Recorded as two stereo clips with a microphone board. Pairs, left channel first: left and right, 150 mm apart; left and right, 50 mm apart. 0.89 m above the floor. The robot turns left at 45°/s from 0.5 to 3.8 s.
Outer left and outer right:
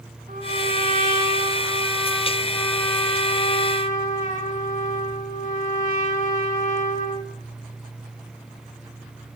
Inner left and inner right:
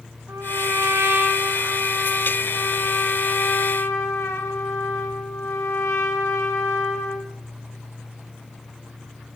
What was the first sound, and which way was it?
A trumpet, 90° right.